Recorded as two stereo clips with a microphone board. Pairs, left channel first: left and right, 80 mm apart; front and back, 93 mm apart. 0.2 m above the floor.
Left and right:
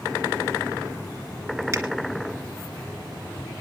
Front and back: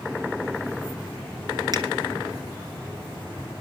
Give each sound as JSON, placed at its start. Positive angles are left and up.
{"t": 1.7, "sound": "a finger snap", "azimuth_deg": -140, "distance_m": 2.5}